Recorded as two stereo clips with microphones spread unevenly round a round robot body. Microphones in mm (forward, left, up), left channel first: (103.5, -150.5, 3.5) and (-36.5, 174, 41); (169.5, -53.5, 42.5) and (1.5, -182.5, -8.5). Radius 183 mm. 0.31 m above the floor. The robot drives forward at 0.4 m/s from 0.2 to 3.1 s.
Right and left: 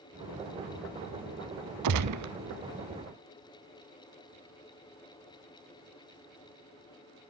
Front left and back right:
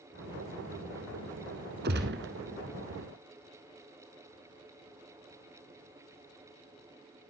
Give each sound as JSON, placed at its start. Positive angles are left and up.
{"t": 1.8, "sound": "a gunshot", "azimuth_deg": 160, "distance_m": 0.7}